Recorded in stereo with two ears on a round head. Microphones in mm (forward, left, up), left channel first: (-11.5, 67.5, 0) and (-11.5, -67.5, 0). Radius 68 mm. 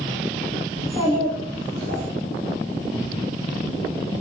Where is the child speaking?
60° right (ahead or behind), 1.7 m; by 2.0 s 70° right (ahead or behind), 1.1 m.